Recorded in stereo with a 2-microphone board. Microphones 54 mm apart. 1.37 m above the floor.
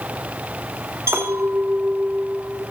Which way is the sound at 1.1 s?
60° right (ahead or behind).